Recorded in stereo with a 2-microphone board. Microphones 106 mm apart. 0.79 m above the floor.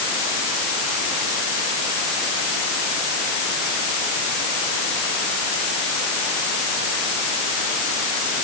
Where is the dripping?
No dripping in this recording.